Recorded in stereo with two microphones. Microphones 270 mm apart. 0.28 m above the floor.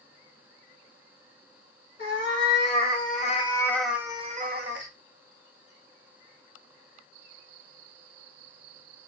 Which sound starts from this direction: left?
A cat meowing, at 2.0 s.